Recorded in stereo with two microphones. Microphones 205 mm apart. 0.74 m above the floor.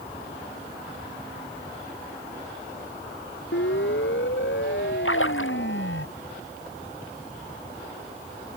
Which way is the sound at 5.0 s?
85° left.